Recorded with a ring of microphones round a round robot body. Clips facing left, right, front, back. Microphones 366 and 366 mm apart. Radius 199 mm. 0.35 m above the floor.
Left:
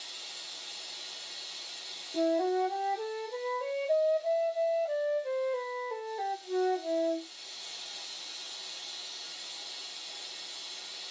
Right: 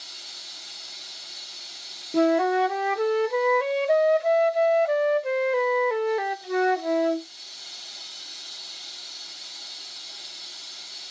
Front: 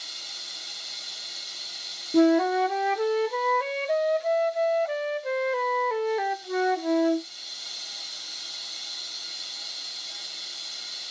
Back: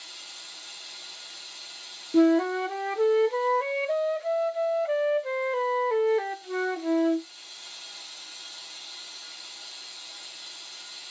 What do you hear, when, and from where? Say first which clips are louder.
0.0 s running water: right 1 dB, front 3 dB; 35° right, 5.5 m
2.1 s a flute: right 7 dB, even; 85° right, 0.7 m